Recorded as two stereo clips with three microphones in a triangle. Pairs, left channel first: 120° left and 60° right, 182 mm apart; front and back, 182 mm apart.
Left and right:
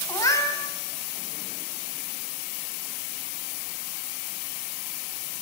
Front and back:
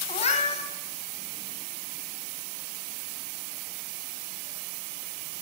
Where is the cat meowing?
50° left, 1.4 m.